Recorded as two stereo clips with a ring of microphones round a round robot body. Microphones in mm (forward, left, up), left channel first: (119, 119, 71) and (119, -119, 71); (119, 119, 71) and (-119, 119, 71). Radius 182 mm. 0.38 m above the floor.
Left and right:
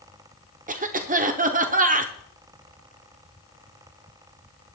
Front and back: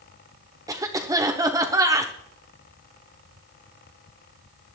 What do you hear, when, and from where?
0.7 s a cough: 115° right, 0.9 m